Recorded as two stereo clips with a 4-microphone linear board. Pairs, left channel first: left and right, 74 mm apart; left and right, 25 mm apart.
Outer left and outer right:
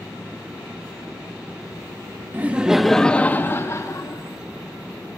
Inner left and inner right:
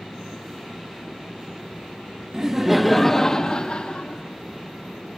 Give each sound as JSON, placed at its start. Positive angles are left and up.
{"t": 2.3, "sound": "laughter", "side_deg": -25, "distance_m": 0.6}